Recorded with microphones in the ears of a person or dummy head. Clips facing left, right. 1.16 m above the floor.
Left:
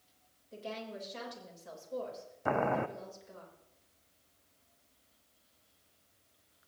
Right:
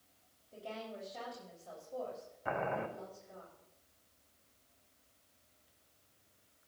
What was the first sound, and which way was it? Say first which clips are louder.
A woman speaking: left 3 dB; 70° left (ahead or behind).